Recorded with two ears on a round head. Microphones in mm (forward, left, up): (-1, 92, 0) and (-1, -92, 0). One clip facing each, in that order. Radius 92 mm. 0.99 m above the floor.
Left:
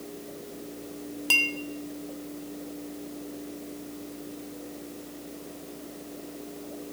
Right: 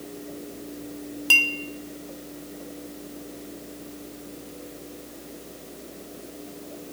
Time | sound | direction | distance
1.3 | a clink | 5° right (ahead or behind) | 0.6 m